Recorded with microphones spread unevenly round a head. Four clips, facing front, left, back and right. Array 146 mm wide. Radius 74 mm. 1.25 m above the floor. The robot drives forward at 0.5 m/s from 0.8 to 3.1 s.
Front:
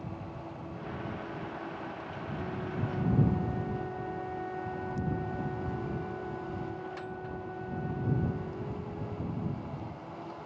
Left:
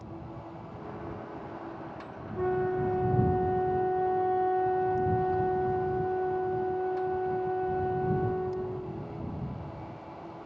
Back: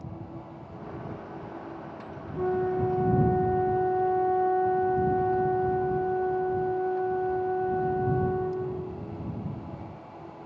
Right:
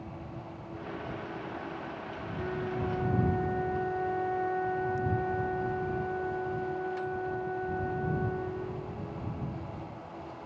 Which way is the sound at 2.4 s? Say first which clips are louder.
Left 7 dB, back 12 dB; 155° left.